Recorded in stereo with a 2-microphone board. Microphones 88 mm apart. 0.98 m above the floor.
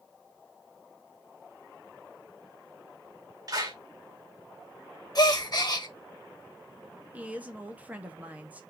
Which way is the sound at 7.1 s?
20° right (ahead or behind).